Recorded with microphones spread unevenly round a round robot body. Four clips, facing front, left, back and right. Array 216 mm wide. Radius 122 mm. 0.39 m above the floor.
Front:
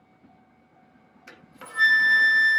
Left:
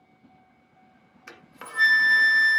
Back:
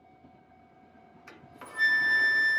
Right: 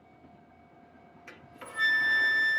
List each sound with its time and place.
1.3 s a flute: 70° left, 1.1 m